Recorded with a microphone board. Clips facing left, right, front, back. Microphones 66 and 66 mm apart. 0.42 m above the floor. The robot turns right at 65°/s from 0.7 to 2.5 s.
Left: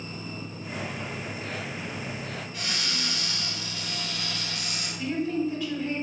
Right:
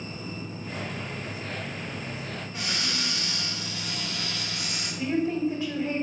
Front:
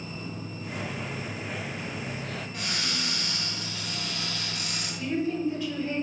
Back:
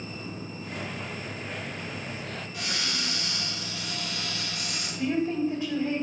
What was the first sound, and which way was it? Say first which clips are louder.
A cupboard door: right 2 dB, back 1 dB; 30° right.